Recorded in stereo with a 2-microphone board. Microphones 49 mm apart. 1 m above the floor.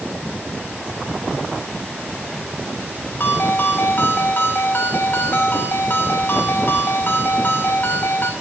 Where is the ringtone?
45° left (ahead or behind), 1.5 m.